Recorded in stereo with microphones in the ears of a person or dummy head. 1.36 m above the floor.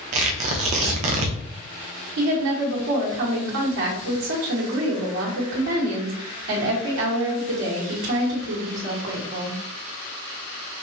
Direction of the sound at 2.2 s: 70° right (ahead or behind).